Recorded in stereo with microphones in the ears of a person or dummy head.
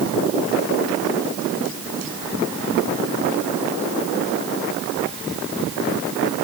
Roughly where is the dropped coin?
No dropped coin in this recording.